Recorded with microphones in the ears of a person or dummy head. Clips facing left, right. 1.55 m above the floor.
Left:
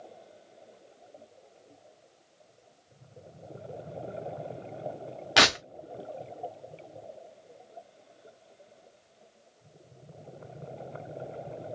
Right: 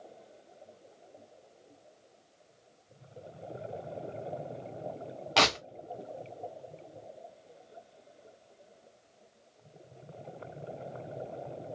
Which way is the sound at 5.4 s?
15° left (ahead or behind).